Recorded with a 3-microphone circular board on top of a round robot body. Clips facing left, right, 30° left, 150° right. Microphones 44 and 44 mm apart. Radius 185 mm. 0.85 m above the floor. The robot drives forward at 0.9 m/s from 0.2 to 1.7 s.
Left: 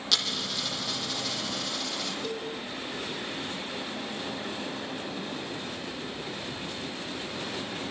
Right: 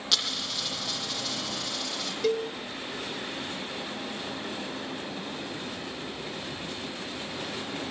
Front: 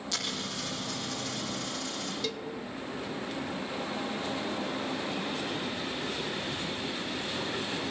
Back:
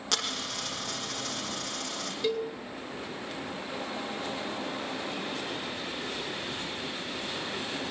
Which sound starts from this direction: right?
A cowbell, at 2.2 s.